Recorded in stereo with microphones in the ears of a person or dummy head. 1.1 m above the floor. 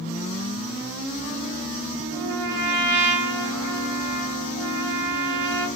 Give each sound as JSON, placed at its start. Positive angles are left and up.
{"t": 2.1, "sound": "a trumpet", "side_deg": -60, "distance_m": 1.3}